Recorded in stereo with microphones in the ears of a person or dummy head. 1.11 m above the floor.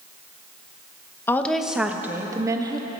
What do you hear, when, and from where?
1.3 s a woman speaking: 15° left (ahead or behind), 0.8 m; by 2.9 s 25° right (ahead or behind), 1.7 m